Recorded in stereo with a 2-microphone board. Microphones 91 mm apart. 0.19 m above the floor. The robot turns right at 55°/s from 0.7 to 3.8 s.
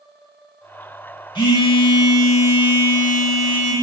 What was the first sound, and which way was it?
A phone buzzing, 70° left.